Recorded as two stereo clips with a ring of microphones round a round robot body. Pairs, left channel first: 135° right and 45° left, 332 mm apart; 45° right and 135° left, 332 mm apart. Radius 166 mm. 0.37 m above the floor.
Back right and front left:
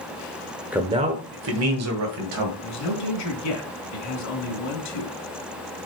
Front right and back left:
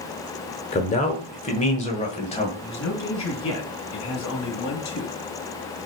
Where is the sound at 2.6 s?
95° right, 3.5 m.